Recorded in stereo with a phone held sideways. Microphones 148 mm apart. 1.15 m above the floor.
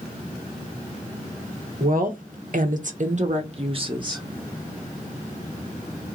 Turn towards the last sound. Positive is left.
turn(degrees=-25)  # may be behind; listen again after turning